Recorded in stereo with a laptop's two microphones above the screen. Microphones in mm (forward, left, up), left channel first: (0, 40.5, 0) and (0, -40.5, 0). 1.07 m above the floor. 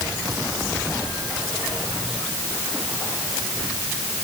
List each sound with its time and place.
Only background noise.